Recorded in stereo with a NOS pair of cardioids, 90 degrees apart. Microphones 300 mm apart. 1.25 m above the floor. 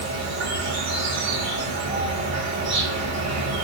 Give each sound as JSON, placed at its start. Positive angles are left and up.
{"t": 0.0, "sound": "an insect", "azimuth_deg": -60, "distance_m": 2.0}